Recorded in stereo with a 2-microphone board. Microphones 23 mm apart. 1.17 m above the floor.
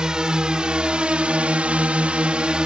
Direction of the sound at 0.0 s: 35° right (ahead or behind).